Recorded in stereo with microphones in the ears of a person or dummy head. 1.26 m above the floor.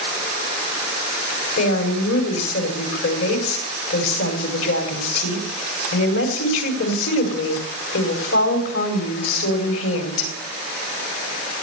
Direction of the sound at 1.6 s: 80° left.